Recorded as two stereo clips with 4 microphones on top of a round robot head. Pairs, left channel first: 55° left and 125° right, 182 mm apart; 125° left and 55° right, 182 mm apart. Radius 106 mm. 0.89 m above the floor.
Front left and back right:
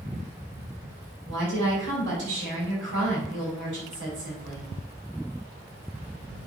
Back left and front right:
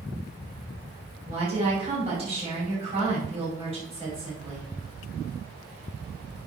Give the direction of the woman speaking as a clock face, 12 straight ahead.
4 o'clock.